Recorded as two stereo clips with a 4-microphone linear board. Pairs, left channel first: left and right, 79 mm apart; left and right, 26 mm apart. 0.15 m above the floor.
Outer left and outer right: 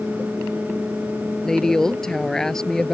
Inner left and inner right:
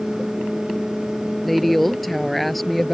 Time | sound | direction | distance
1.4 | a woman speaking | 5° left (ahead or behind) | ?